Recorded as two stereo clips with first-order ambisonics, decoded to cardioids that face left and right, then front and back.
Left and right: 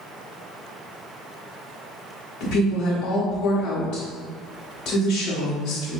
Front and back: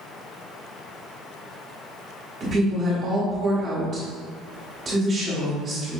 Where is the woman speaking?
120° left, 1.1 m.